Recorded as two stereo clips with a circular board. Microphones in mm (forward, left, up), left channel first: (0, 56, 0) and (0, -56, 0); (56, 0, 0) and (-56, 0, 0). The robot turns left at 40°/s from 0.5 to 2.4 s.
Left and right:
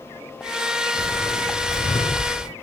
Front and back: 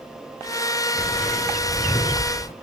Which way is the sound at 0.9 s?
90° left.